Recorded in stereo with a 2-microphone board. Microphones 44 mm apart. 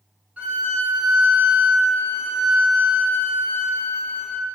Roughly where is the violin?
Right.